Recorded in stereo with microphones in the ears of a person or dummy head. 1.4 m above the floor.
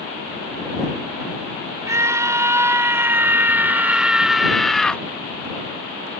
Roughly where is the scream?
Centre.